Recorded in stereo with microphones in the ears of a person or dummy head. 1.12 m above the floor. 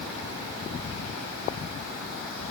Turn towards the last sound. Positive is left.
No sound to turn to.